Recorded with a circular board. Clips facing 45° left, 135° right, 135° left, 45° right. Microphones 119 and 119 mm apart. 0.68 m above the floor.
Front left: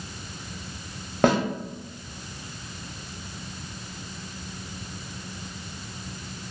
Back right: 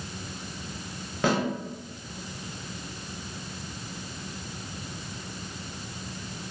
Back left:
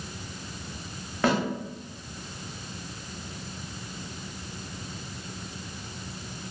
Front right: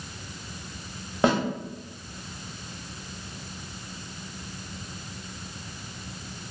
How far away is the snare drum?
About 0.8 m.